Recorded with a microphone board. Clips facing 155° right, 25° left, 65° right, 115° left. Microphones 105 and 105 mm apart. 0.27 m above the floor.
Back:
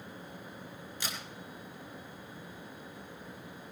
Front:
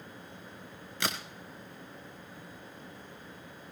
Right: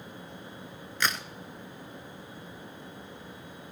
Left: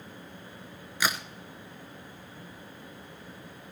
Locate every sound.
1.0 s a crack: 30° left, 1.1 m